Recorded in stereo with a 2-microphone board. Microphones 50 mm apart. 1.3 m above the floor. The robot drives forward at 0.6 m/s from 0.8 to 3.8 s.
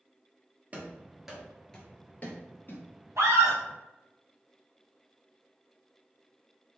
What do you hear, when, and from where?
0.7 s running footsteps: 30° right (ahead or behind), 1.5 m; by 2.8 s 45° left (ahead or behind), 1.8 m
3.2 s a scream: 70° right (ahead or behind), 1.3 m; by 3.6 s 60° right (ahead or behind), 1.4 m